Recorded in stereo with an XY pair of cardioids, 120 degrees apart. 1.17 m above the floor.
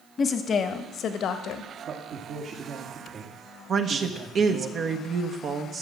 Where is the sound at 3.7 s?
45° right, 1.0 m.